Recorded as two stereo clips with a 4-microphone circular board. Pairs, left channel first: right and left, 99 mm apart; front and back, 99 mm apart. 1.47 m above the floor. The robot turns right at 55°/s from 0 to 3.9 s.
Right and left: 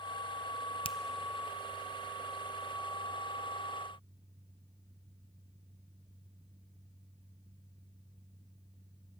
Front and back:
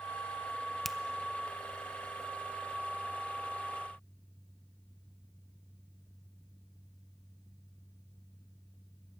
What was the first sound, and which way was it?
A finger snap, 90° right.